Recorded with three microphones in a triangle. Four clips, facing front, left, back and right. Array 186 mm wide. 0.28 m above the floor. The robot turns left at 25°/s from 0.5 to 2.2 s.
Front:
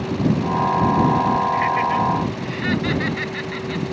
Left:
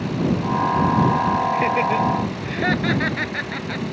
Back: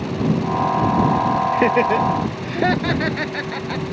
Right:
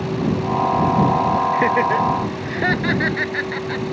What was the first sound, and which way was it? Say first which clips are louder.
Laughter: right 2 dB, back 3 dB; 160° right.